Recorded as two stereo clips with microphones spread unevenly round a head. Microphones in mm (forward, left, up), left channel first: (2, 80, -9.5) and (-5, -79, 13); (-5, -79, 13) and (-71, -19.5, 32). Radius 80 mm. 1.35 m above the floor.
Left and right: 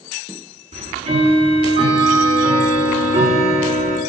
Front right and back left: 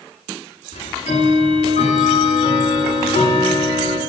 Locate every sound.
0.7 s ticking: 40° right, 7 m